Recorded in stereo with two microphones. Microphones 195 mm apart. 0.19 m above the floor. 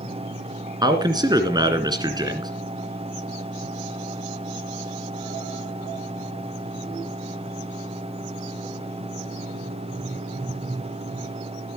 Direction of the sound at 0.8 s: 20° right (ahead or behind).